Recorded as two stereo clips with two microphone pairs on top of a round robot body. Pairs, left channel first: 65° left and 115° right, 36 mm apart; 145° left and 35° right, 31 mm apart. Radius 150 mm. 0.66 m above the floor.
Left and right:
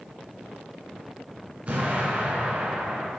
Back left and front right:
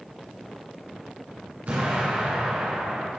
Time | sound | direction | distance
1.7 | an explosion | 60° right | 2.0 m